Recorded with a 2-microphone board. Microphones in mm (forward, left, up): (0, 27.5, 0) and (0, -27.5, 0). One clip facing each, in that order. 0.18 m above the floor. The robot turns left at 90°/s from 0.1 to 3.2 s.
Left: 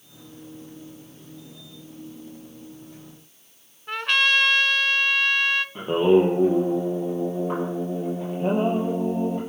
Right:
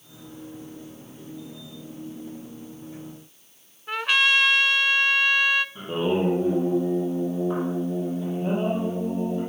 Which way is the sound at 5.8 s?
60° left (ahead or behind).